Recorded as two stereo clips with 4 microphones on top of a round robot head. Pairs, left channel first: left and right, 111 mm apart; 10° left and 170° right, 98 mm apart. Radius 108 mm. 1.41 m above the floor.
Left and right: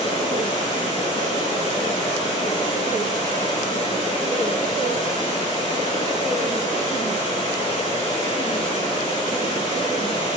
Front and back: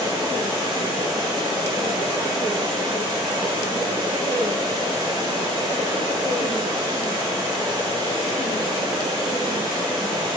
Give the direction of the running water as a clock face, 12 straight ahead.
7 o'clock.